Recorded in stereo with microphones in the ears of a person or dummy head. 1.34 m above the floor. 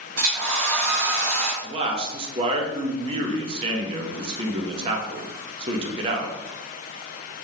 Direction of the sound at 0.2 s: 70° right (ahead or behind).